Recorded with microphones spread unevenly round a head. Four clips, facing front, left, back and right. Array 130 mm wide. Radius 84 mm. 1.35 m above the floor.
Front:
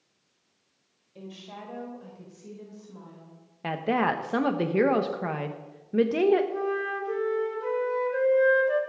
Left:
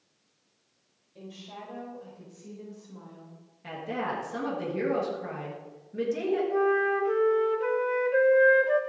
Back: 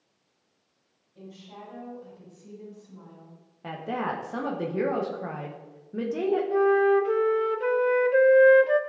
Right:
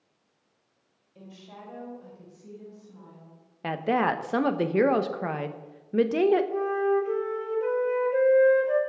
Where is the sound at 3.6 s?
45° right, 1.1 m.